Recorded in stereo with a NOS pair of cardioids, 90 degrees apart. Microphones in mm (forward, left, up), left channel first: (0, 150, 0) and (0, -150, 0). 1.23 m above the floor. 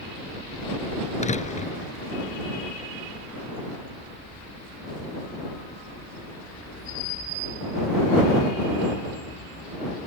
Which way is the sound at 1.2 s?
25° left.